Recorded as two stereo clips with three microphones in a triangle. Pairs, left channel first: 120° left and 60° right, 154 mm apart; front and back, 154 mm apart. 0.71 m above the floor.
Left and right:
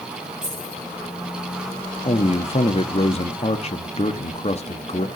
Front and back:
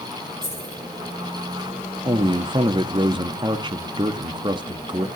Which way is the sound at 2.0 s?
135° left.